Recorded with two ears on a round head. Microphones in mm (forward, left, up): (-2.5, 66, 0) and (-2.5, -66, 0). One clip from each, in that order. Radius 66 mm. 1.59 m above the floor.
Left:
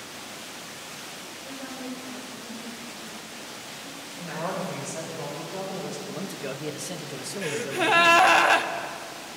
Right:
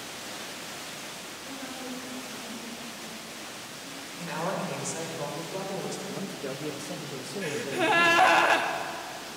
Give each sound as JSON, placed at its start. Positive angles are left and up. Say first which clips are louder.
{"t": 1.4, "sound": "a woman speaking", "louder": "left 2 dB", "side_deg": 10, "distance_m": 5.5}
{"t": 4.2, "sound": "a woman speaking", "louder": "even", "side_deg": -60, "distance_m": 7.5}
{"t": 6.1, "sound": "a man speaking", "louder": "left 1 dB", "side_deg": 30, "distance_m": 1.6}
{"t": 7.4, "sound": "a gasp", "louder": "left 2 dB", "side_deg": 15, "distance_m": 1.2}